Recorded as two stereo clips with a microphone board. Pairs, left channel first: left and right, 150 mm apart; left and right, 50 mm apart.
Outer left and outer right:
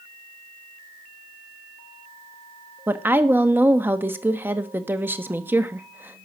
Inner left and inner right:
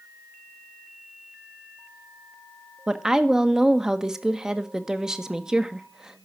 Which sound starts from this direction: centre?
A woman speaking, at 2.9 s.